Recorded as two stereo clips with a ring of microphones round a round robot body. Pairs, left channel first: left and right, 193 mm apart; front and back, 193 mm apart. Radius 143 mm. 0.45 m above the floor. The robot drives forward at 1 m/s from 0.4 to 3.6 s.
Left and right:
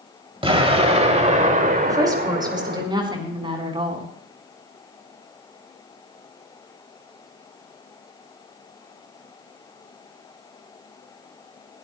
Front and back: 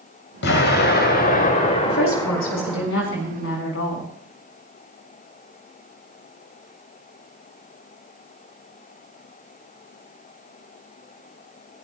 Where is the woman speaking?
20° right, 6 m; by 4.1 s 30° right, 4.5 m.